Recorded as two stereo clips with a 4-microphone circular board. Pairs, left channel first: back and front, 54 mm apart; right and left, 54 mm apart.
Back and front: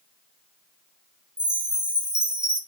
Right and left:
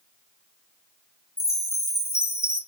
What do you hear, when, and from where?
1.4 s a chime: 70° right, 0.5 m